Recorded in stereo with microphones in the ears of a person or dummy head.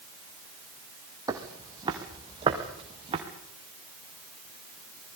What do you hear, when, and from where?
1.3 s footsteps: 20° right (ahead or behind), 3 m; by 3.2 s 25° right (ahead or behind), 4.5 m